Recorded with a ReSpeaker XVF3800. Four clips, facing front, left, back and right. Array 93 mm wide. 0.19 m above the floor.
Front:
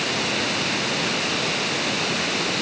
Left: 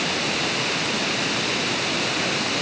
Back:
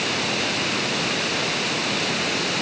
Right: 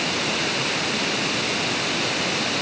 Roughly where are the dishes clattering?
No dishes clattering in this recording.